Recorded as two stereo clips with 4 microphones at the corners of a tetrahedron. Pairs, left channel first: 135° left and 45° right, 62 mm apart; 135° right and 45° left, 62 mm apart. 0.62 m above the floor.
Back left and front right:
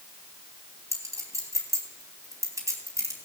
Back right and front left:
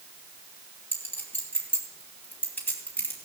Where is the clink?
80° right, 3 m.